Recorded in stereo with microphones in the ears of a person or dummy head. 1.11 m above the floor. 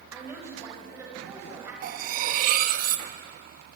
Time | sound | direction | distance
0.1 | a woman speaking | 15° right (ahead or behind) | 5.5 m
1.8 | cutlery clinking | 50° right (ahead or behind) | 0.9 m